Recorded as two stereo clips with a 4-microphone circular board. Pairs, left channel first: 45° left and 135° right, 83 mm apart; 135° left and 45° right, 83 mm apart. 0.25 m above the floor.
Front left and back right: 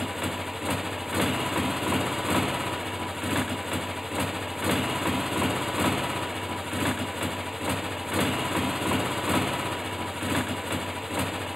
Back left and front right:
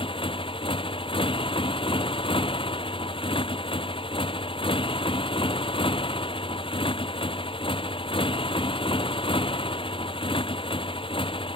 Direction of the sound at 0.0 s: 140° left.